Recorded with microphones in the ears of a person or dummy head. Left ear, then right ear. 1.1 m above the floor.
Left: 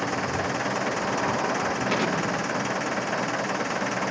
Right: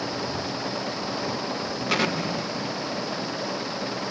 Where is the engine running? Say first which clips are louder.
Left 3 dB; 45° left (ahead or behind).